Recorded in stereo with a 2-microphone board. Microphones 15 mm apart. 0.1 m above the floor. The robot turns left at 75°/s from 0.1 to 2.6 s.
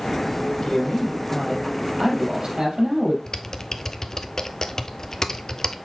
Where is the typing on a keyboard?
35° left (ahead or behind), 0.7 m.